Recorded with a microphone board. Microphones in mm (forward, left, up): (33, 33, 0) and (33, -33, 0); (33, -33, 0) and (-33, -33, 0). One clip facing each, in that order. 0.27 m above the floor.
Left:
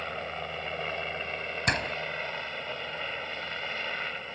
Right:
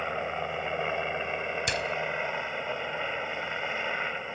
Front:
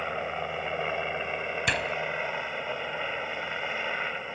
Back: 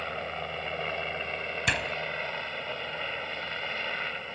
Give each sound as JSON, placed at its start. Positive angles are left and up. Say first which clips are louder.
{"t": 0.0, "sound": "a helicopter", "louder": "right 4 dB, front 3 dB", "azimuth_deg": -55}
{"t": 1.7, "sound": "a door slam", "louder": "left 5 dB, even", "azimuth_deg": 90}